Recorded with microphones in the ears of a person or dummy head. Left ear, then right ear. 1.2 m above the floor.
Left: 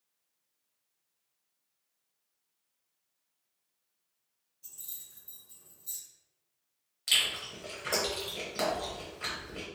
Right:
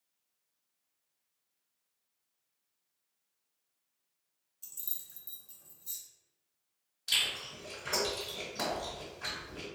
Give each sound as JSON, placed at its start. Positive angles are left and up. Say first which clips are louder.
{"t": 4.6, "sound": "keys jangling", "louder": "right 1 dB", "side_deg": -50, "distance_m": 0.8}
{"t": 7.1, "sound": "chewing", "louder": "left 3 dB", "side_deg": 45, "distance_m": 1.1}